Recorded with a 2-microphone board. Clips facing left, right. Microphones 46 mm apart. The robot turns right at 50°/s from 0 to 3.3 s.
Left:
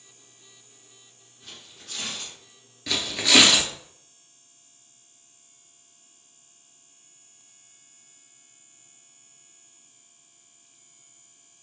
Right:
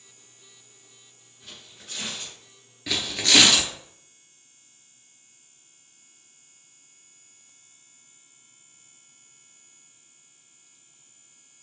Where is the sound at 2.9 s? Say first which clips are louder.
Left 1 dB; 10° right (ahead or behind), 0.7 m; by 3.7 s 10° left (ahead or behind), 0.7 m.